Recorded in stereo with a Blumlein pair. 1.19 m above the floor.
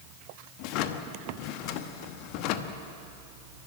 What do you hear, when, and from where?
0.6 s a drawer: 40° left, 1.0 m